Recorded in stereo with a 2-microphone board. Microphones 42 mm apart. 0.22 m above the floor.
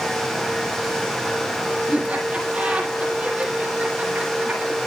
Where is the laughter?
25° right (ahead or behind), 7 m.